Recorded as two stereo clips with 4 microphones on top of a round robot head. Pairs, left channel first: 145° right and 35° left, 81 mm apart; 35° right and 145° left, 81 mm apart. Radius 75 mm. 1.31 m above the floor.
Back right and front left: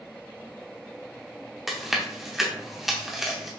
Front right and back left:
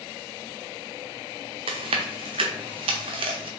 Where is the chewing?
125° left, 0.6 m.